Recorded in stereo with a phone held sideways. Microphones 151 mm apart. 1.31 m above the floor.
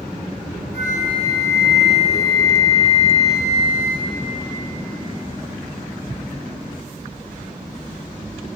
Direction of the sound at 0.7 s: 55° right (ahead or behind).